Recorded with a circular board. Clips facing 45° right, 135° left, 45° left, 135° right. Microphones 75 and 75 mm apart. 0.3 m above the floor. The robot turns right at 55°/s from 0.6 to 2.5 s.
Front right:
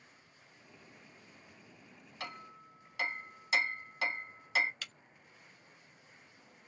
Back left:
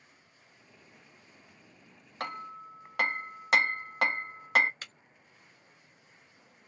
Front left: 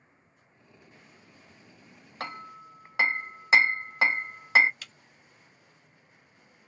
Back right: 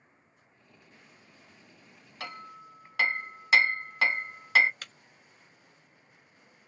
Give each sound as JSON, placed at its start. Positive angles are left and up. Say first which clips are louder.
{"t": 2.2, "sound": "hammering", "louder": "back left 8 dB, front left 3 dB", "azimuth_deg": 95, "distance_m": 0.6}
{"t": 4.8, "sound": "breaking glass", "louder": "back left 1 dB, back right 2 dB", "azimuth_deg": -175, "distance_m": 0.9}